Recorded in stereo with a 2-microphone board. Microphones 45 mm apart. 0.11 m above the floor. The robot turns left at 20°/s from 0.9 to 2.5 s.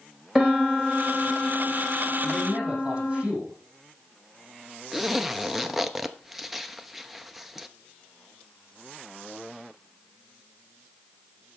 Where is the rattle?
I don't hear a rattle.